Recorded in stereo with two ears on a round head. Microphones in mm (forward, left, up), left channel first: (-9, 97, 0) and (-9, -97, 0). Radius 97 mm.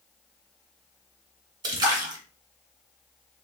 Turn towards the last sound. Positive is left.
turn(degrees=-20)  # may be behind; listen again after turning